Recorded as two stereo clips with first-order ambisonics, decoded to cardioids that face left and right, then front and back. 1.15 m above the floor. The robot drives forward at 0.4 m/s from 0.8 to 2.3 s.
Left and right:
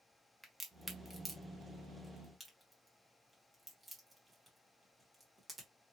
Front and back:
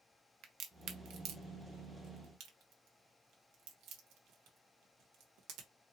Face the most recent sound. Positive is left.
turn(degrees=180)